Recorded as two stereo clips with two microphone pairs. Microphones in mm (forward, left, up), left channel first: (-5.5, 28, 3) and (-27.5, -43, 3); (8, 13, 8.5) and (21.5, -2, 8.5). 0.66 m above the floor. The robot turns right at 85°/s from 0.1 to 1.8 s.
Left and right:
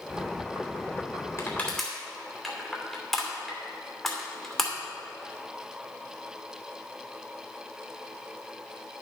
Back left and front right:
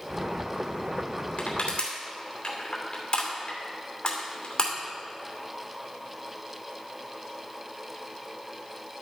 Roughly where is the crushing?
Behind left.